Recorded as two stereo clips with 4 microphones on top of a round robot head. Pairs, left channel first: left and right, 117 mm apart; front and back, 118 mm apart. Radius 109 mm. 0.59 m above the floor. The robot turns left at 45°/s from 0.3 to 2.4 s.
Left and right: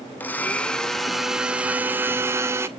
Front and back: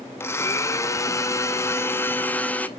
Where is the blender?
35° left, 0.8 m; by 2.7 s 60° right, 0.8 m.